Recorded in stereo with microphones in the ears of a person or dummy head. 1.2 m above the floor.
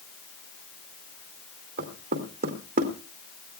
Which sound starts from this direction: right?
Knocking, at 1.8 s.